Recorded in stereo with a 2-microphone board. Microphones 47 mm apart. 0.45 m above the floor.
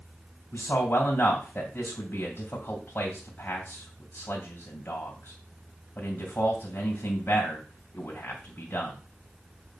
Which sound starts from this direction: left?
A man speaking, at 0.5 s.